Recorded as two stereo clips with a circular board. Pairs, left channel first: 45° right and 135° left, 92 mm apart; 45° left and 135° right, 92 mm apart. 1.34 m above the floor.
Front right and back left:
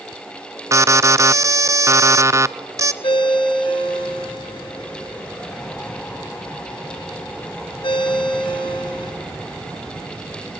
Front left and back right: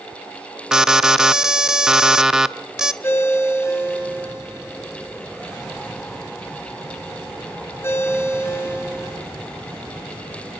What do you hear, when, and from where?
0.7 s an alarm: 145° left, 0.7 m
3.0 s a ringtone: 20° right, 4 m